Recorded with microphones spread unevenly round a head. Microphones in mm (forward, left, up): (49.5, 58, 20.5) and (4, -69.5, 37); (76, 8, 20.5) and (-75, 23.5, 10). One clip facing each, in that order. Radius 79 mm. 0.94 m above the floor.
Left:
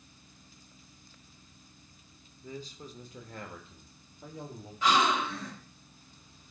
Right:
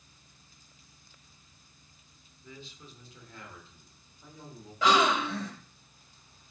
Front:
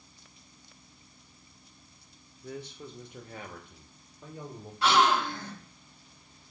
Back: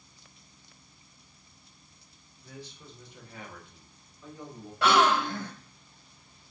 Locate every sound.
2.4 s a man speaking: 25° left, 1.2 m; by 4.7 s 45° left, 2.5 m
4.8 s a gasp: 140° right, 3 m